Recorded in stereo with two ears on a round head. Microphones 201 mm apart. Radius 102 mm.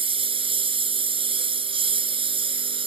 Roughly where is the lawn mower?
Right.